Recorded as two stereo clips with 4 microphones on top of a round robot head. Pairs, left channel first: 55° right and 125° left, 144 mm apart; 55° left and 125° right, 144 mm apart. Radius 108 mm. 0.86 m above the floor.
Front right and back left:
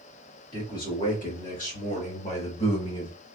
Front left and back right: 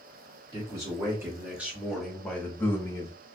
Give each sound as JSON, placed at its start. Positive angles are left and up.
{"t": 0.5, "sound": "a man speaking", "azimuth_deg": -65, "distance_m": 1.9}